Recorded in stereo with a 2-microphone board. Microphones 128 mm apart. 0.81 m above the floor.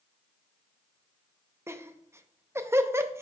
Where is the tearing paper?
No tearing paper in this recording.